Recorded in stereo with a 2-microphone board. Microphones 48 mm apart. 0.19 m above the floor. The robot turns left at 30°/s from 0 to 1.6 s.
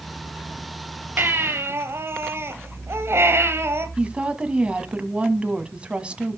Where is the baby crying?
45° right (ahead or behind), 2 m; by 3.9 s 55° right (ahead or behind), 2 m.